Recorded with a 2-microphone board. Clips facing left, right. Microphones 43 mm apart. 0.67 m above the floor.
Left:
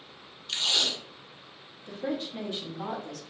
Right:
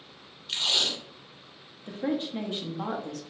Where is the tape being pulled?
10° right (ahead or behind), 1.2 m.